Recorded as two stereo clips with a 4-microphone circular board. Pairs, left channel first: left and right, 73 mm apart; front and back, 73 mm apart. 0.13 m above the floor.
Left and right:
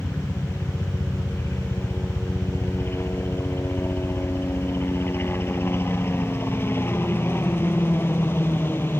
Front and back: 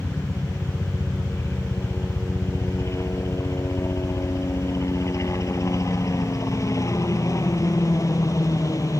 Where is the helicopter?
45° left; by 9.0 s 35° left.